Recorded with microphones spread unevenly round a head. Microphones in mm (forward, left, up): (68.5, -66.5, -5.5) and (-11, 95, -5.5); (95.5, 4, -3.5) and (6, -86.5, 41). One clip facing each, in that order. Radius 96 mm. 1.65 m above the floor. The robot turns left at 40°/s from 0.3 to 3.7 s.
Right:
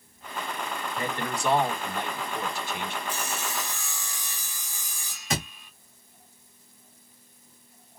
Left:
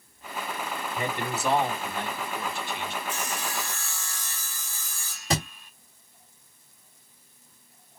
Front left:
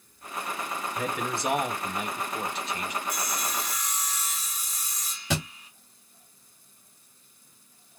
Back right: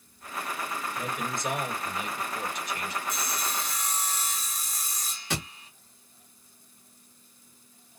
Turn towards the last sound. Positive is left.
turn(degrees=70)